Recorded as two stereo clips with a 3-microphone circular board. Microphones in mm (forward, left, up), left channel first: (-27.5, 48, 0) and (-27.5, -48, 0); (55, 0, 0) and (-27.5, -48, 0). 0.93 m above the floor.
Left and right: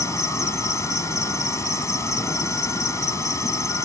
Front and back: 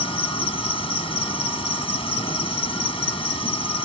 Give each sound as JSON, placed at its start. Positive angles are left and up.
{"t": 0.0, "sound": "an insect", "azimuth_deg": 30}